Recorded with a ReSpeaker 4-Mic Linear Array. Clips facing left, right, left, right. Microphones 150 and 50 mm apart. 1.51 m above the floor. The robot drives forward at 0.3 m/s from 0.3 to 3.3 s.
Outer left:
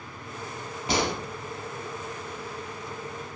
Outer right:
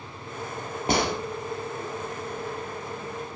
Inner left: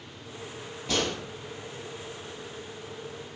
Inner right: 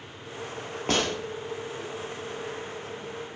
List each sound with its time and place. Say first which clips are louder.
0.9 s a gunshot: outer right 2 dB, inner right 2 dB; 50° right (ahead or behind), 0.7 m; by 1.1 s 55° right (ahead or behind), 0.7 m